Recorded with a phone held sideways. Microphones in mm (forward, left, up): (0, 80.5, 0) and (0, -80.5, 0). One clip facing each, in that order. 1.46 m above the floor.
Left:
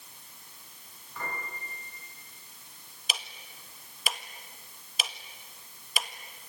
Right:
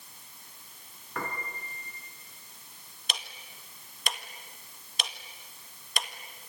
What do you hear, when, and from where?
1.1 s a piano: 70° right (ahead or behind), 5 m
3.1 s ticking: 5° left (ahead or behind), 1.5 m